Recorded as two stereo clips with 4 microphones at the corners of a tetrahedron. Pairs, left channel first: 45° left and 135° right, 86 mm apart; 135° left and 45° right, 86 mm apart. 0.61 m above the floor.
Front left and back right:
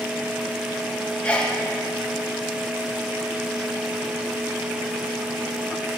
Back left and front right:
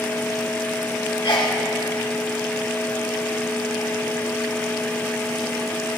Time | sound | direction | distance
1.2 | a sneeze | 110° left | 1.2 m